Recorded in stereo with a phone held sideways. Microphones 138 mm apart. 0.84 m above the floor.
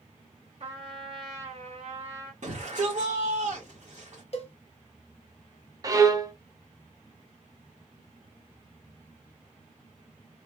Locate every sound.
0.6 s a trumpet: 45° right (ahead or behind), 1.9 m
2.4 s a shout: 60° right (ahead or behind), 1.5 m
4.3 s a cowbell: 50° left (ahead or behind), 0.7 m
5.8 s a violin: 25° right (ahead or behind), 0.5 m